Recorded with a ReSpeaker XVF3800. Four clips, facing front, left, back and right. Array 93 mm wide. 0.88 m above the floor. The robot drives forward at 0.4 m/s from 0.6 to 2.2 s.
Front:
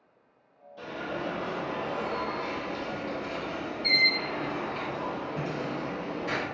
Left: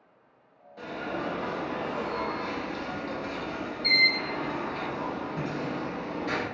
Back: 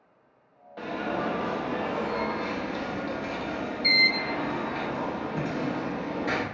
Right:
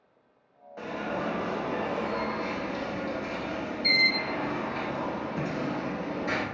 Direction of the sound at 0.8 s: 155° right.